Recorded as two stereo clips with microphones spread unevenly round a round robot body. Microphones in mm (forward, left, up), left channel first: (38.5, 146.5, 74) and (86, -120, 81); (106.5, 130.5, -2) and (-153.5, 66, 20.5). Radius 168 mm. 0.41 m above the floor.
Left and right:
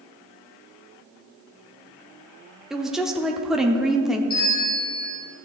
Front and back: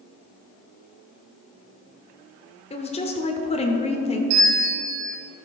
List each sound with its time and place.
2.7 s a woman speaking: 10° left, 0.8 m
4.3 s a bell: 175° left, 3 m